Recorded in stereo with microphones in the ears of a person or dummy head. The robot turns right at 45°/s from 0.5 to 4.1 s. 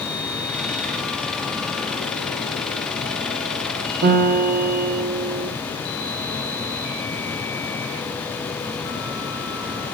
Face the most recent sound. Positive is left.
turn(degrees=-50)  # may be behind; listen again after turning